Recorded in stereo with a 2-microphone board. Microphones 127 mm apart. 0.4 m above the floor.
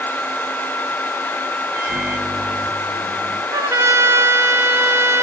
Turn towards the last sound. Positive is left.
turn(degrees=-20)  # may be behind; listen again after turning